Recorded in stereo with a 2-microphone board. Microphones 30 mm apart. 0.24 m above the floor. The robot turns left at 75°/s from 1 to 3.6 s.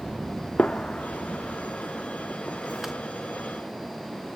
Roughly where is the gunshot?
Left.